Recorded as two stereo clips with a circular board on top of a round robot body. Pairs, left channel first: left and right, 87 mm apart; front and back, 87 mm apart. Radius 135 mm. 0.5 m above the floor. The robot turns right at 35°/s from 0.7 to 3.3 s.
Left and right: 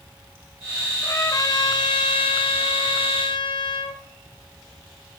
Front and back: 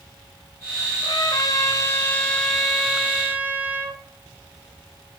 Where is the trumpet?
30° left, 0.7 m; by 4.0 s 110° left, 0.7 m.